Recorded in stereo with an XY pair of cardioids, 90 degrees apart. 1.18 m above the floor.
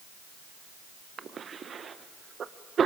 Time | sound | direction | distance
1.2 | a cough | 55° right | 0.6 m